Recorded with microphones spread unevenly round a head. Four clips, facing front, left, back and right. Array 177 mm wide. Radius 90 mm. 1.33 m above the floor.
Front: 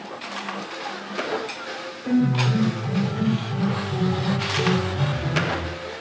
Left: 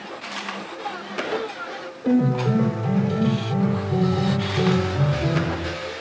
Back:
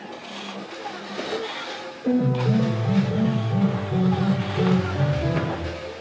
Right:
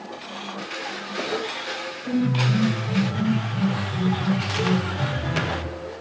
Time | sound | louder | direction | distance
2.0 | a piano | left 4 dB, even | 115° left | 4 m